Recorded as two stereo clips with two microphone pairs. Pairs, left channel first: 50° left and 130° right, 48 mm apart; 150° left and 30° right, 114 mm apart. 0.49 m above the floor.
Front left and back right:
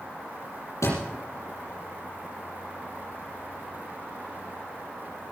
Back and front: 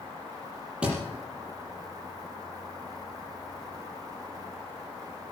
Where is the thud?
50° left, 5.5 m.